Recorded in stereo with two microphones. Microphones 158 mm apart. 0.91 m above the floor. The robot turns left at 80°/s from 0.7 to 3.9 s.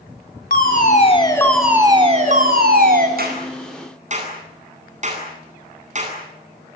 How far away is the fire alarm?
About 5 m.